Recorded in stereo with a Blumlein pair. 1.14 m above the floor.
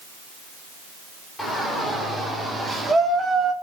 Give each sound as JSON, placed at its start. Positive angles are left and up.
{"t": 1.4, "sound": "a shout", "azimuth_deg": 5, "distance_m": 5.0}